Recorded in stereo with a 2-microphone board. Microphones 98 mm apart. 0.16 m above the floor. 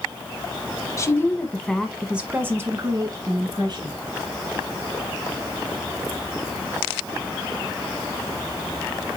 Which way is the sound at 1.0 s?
30° left (ahead or behind).